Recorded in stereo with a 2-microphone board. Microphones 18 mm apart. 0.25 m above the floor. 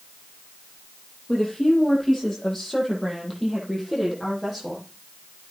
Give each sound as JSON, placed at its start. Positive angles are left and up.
{"t": 1.3, "sound": "a woman speaking", "side_deg": 20, "distance_m": 8.0}